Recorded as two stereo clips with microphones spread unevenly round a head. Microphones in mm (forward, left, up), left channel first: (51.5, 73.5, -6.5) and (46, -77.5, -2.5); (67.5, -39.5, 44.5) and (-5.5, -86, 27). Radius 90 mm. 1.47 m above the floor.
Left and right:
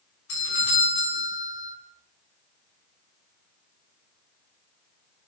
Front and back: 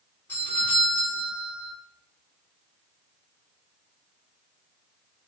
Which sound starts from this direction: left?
A doorbell, at 0.3 s.